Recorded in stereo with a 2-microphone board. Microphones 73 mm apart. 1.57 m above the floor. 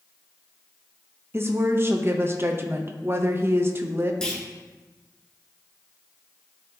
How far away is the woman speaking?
About 0.7 m.